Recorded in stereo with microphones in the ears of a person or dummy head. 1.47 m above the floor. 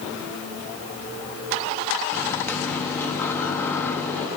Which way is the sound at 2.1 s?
10° left (ahead or behind).